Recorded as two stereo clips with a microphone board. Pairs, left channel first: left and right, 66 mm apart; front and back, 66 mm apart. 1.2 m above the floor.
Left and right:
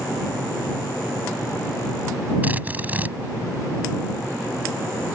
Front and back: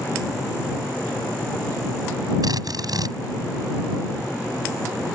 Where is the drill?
155° right.